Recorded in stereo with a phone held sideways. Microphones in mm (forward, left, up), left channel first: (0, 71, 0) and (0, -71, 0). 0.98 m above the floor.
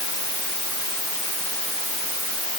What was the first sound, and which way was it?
Only background noise.